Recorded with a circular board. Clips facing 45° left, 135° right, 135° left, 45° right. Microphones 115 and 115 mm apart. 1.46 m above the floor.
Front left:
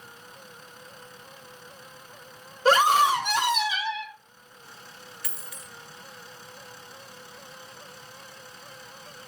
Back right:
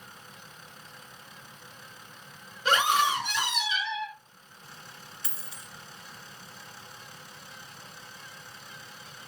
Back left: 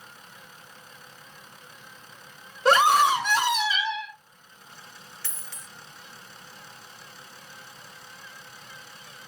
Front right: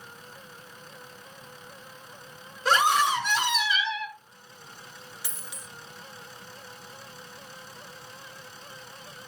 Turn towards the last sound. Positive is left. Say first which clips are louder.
# front left 2 dB, front right 2 dB
turn(degrees=-110)